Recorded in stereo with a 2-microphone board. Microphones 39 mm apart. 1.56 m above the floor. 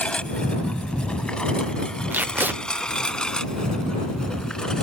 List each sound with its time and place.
0.0 s a lawn mower: 30° left (ahead or behind); by 4.8 s 15° left (ahead or behind)
2.1 s tape being pulled: 60° right (ahead or behind)